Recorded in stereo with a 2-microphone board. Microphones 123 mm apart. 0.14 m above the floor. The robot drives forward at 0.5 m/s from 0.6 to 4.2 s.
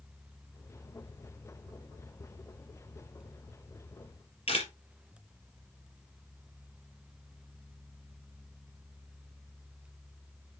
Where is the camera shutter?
50° left (ahead or behind), 4 m.